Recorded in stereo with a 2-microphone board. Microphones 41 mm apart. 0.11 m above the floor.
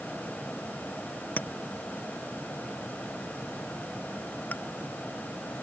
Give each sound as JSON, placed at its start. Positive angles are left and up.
{"t": 1.4, "sound": "a clink", "side_deg": 40}